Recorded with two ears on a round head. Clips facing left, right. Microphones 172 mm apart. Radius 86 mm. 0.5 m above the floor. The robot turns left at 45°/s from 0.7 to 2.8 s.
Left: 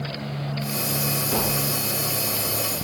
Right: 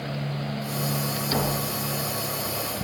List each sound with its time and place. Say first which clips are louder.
1.3 s tapping: even; 10° right (ahead or behind), 3 m; by 1.7 s 30° right (ahead or behind), 3 m